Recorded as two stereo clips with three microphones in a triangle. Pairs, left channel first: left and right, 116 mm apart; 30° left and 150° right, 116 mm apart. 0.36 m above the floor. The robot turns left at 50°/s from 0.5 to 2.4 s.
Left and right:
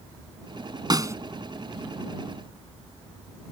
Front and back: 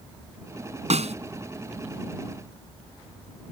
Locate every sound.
0.9 s a snare drum: 140° right; by 1.1 s 155° right